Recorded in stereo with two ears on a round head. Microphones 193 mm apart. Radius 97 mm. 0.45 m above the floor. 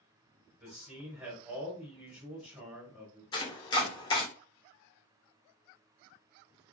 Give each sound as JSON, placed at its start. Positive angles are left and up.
{"t": 0.6, "sound": "a man speaking", "side_deg": -5, "distance_m": 1.2}
{"t": 3.3, "sound": "chopping", "side_deg": 20, "distance_m": 0.5}